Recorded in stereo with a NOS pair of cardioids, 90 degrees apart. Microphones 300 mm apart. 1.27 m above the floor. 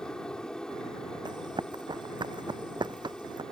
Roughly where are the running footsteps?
Ahead.